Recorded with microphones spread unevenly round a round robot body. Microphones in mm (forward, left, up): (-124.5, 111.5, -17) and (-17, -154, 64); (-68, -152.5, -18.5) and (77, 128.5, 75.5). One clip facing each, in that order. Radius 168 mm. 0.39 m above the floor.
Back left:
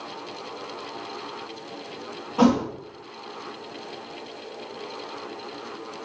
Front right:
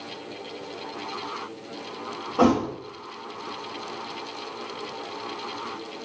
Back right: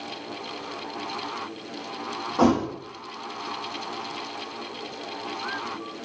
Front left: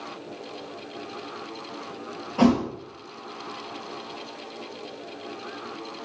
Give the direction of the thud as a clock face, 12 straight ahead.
10 o'clock.